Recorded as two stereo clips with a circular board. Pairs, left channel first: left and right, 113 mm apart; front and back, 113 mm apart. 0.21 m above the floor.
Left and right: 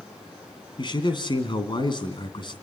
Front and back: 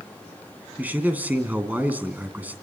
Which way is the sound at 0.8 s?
110° left.